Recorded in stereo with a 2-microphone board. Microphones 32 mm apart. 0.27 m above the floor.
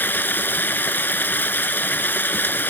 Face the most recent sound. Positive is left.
turn(degrees=75)  # may be behind; listen again after turning